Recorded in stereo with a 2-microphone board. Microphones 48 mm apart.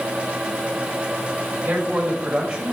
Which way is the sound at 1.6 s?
30° right (ahead or behind).